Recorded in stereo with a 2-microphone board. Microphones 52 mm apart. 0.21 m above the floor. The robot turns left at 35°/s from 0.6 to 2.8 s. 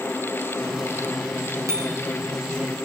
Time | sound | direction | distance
1.7 | a bicycle bell | 75° right (ahead or behind) | 5 m